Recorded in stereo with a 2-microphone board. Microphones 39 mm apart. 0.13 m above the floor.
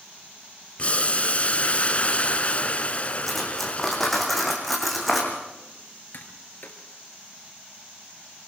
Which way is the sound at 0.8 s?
35° left (ahead or behind).